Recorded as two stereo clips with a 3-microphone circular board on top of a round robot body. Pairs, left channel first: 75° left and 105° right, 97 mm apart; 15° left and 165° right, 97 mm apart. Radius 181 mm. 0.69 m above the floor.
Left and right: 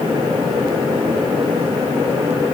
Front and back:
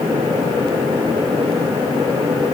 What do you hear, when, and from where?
Only background noise.